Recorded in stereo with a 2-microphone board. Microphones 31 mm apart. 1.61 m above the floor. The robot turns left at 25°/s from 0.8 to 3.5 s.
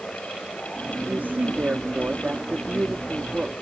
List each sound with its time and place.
1.1 s a woman speaking: 100° right; by 3.5 s 160° right